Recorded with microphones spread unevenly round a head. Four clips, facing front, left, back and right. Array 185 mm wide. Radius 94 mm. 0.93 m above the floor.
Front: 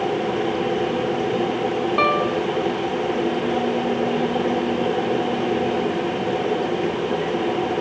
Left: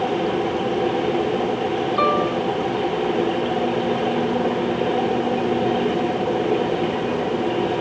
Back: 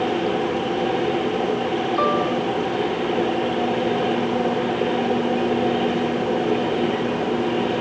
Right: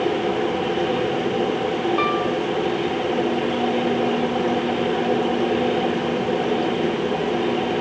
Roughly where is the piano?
Ahead.